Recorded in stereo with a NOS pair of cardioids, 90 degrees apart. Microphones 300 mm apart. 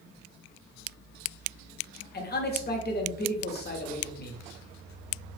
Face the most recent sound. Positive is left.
turn(degrees=35)